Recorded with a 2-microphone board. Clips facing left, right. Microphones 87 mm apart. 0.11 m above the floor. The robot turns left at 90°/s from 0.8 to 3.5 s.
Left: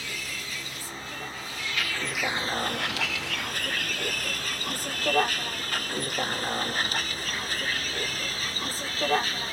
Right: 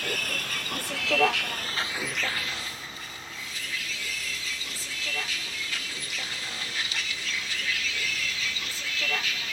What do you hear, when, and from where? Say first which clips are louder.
0.0 s a vehicle: right 5 dB; 55° right (ahead or behind); by 9.5 s 35° left (ahead or behind)